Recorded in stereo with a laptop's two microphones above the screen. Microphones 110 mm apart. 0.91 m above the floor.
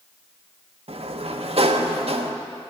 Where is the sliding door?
75° right (ahead or behind), 0.6 m.